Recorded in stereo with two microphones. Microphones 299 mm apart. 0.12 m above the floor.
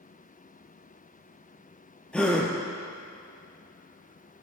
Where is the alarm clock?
No alarm clock in this recording.